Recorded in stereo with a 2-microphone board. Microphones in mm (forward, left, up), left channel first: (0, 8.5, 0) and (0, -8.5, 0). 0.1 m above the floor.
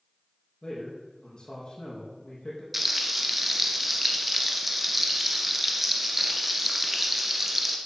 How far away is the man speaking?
About 5 m.